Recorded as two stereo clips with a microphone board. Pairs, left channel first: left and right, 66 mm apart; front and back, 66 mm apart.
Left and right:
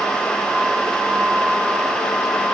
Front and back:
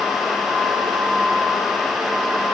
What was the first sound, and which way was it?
Only background noise.